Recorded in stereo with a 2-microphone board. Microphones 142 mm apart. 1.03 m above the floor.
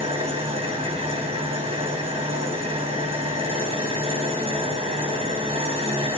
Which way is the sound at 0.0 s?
45° right (ahead or behind).